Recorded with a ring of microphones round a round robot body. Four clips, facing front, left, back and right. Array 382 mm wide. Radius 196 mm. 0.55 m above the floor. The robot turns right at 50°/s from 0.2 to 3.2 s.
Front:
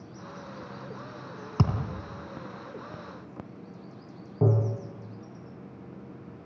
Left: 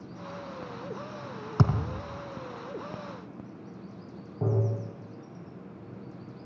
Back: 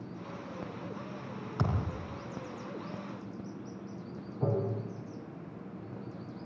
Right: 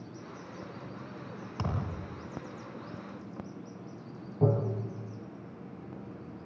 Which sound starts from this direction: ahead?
Tapping, at 4.4 s.